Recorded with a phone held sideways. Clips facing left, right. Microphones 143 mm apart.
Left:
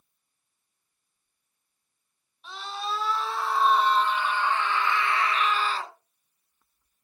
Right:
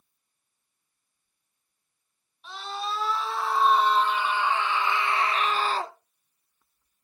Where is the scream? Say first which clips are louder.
Even; centre (ahead or behind), 3.5 m; by 6.0 s 40° right (ahead or behind), 0.7 m.